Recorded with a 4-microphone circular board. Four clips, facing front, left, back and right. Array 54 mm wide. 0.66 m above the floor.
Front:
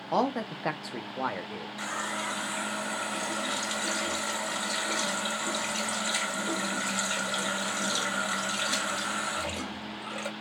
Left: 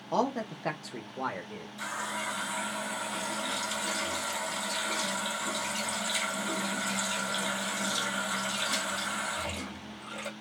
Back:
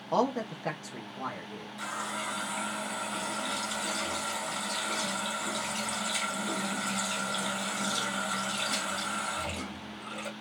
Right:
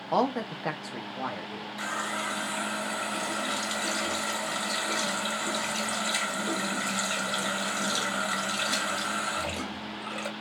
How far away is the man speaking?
About 0.6 m.